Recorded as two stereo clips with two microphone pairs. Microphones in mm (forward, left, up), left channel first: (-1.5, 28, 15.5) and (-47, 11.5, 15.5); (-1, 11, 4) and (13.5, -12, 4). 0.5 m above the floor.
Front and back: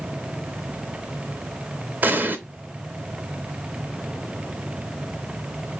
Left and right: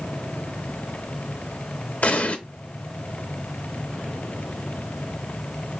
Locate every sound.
2.0 s an explosion: 150° left, 0.8 m